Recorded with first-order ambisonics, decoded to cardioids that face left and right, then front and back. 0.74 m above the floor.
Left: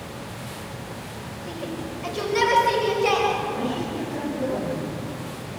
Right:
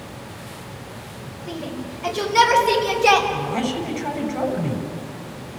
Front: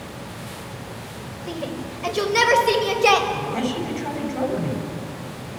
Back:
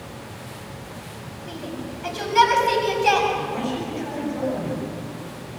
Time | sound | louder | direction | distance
1.5 | a shout | right 2 dB, front 4 dB | 5° right | 3.5 m
3.3 | a man speaking | right 1 dB, front 1 dB | 50° right | 7.5 m